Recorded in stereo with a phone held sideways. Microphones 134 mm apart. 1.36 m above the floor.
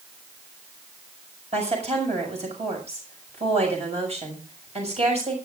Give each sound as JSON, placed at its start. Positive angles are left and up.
{"t": 1.5, "sound": "a woman speaking", "side_deg": -50, "distance_m": 6.5}